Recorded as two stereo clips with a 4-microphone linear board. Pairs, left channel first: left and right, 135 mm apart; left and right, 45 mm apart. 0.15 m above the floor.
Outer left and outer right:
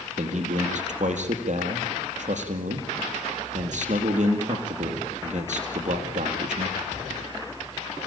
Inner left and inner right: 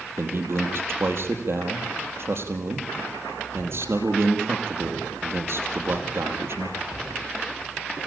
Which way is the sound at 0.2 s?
65° right (ahead or behind).